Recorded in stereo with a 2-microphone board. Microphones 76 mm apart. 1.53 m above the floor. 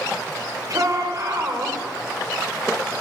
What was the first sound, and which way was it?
A shout, 50° right (ahead or behind).